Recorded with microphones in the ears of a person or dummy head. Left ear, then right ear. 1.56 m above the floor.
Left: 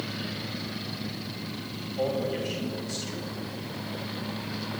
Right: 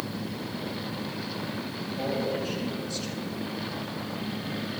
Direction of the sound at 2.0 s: 35° left (ahead or behind).